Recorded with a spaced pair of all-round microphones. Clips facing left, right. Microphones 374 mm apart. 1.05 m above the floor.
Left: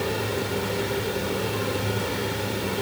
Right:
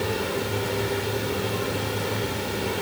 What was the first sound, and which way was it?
Only background noise.